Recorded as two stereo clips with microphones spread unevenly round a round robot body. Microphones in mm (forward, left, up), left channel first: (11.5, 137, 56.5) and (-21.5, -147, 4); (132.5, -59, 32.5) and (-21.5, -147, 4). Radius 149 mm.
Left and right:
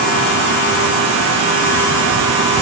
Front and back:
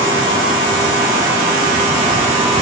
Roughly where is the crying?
No crying in this recording.